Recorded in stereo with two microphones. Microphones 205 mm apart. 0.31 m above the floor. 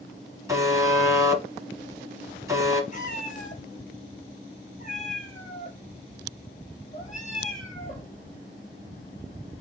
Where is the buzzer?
15° right (ahead or behind), 1.4 m.